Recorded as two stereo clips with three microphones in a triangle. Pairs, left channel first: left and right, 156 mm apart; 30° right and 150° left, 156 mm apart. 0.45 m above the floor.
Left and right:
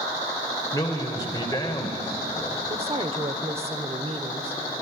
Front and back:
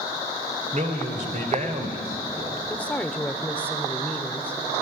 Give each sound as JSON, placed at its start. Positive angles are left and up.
{"t": 0.7, "sound": "a man speaking", "azimuth_deg": 150, "distance_m": 2.0}
{"t": 2.7, "sound": "a woman speaking", "azimuth_deg": -105, "distance_m": 1.3}